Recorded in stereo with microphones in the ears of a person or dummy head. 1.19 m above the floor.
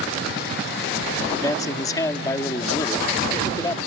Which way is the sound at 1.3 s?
10° left (ahead or behind).